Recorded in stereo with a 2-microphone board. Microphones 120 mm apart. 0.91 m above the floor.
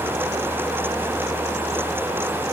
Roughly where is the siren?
I don't hear a siren.